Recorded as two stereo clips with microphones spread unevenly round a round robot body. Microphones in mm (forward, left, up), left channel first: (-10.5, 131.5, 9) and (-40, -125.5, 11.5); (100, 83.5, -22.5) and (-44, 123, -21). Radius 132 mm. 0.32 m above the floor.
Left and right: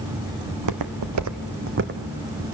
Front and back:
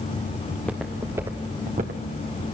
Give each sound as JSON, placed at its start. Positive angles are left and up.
{"t": 0.5, "sound": "footsteps", "azimuth_deg": -95, "distance_m": 1.4}